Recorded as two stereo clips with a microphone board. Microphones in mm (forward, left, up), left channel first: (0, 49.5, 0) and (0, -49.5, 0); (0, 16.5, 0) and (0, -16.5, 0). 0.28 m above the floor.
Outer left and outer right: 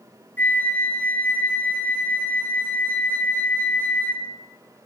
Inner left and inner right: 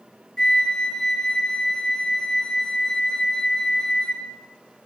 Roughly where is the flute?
Left.